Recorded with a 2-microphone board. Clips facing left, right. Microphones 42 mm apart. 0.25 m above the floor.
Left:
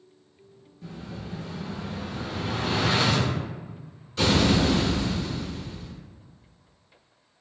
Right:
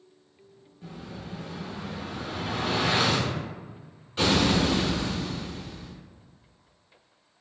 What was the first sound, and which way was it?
An explosion, 25° right (ahead or behind).